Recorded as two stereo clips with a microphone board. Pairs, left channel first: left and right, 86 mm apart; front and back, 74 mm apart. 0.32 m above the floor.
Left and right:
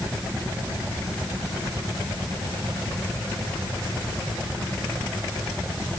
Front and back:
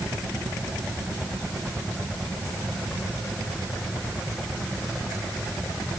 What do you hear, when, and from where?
Only background noise.